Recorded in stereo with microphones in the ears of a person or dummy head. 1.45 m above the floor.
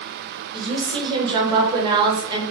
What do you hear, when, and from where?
0.5 s a woman speaking: 20° right (ahead or behind), 1.4 m